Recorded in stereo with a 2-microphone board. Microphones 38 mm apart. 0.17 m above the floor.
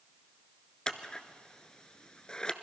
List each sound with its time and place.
0.9 s scissors: 20° left (ahead or behind), 0.8 m